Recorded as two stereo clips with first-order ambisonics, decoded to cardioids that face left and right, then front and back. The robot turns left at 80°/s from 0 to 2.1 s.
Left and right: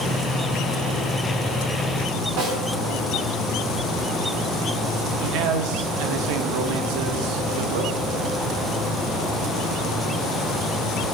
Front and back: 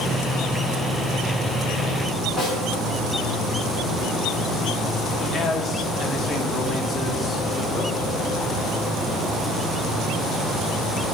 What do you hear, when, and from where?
2.4 s a snare drum: 100° right, 3.5 m
5.2 s a man speaking: 80° right, 0.9 m